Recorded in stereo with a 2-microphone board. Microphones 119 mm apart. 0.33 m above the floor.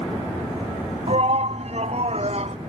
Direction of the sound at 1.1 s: 55° right (ahead or behind).